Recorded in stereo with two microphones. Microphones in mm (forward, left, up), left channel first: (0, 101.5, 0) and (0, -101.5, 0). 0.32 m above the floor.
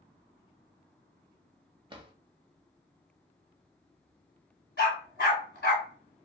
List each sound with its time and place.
1.9 s a drawer: 25° right (ahead or behind), 0.6 m
4.8 s a dog barking: 55° left (ahead or behind), 1.2 m